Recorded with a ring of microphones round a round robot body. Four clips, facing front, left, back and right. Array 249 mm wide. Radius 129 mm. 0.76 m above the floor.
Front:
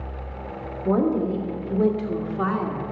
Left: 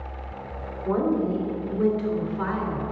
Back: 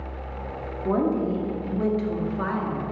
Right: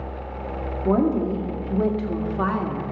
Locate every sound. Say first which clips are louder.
0.8 s a woman speaking: right 3 dB, front 2 dB; 110° right, 2.5 m; by 2.9 s 85° right, 1.7 m